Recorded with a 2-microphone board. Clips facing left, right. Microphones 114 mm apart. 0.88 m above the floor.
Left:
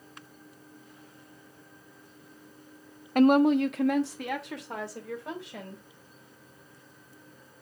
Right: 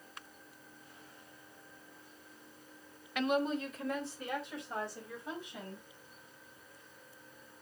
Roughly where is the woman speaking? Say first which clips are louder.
Left 12 dB; left.